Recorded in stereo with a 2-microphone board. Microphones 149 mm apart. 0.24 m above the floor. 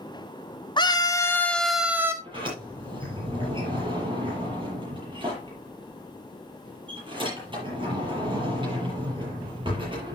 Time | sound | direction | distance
0.8 | a scream | 30° left (ahead or behind) | 2 m
2.2 | a sliding door | 35° right (ahead or behind) | 7.5 m